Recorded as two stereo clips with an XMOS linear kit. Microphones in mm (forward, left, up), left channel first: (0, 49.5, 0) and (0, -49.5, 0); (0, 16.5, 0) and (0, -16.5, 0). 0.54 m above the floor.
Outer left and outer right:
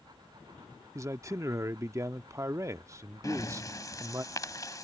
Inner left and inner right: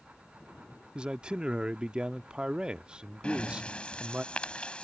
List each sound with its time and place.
0.9 s a man speaking: 30° right (ahead or behind)
3.2 s breathing: 35° left (ahead or behind)